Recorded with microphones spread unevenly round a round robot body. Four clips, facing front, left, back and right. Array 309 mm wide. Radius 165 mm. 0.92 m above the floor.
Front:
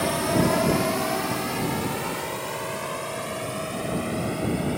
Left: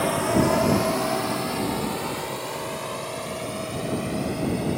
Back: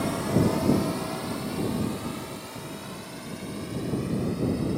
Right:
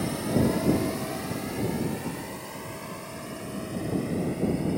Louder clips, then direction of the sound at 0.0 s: Left 4 dB, front 2 dB; 55° left.